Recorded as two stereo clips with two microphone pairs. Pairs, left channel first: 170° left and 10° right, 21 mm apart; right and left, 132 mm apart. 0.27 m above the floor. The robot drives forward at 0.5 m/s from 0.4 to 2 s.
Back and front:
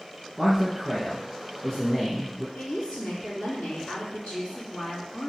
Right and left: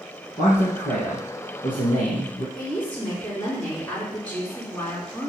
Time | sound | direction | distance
0.4 | a man speaking | 85° right | 4 m
2.5 | a woman speaking | 165° right | 3.5 m